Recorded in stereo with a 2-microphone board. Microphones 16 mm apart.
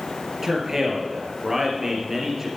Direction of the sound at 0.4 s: 25° right (ahead or behind).